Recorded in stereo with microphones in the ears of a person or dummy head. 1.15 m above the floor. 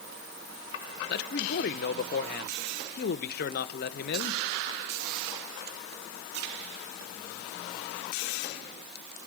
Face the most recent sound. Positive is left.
turn(degrees=50)  # may be behind; listen again after turning